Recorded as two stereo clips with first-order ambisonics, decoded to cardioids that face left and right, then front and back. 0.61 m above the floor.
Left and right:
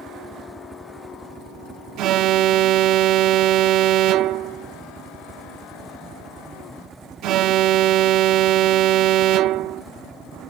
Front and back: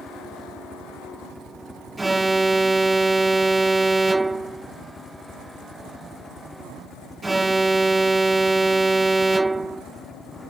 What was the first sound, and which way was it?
A helicopter, 50° right.